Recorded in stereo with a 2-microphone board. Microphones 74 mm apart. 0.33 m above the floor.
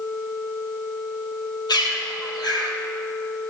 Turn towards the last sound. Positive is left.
turn(degrees=65)  # may be behind; listen again after turning